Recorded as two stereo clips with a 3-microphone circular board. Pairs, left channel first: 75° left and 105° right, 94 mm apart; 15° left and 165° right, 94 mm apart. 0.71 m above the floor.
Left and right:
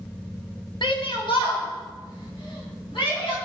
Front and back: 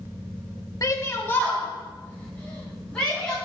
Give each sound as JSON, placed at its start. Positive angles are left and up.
{"t": 0.8, "sound": "a shout", "azimuth_deg": 60, "distance_m": 1.0}